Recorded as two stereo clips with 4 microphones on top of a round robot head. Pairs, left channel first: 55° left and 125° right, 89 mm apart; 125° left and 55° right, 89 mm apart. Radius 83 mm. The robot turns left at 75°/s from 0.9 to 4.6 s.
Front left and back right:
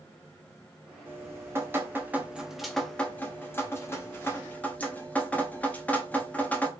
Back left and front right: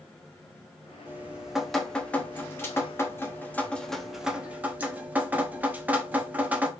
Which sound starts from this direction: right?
Dripping, at 1.1 s.